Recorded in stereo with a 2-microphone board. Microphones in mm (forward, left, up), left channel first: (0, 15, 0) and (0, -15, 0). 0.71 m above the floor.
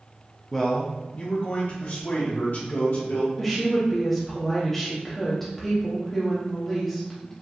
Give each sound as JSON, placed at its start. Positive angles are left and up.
{"t": 0.5, "sound": "a man speaking", "side_deg": 5, "distance_m": 0.6}
{"t": 3.4, "sound": "a woman speaking", "side_deg": 5, "distance_m": 0.7}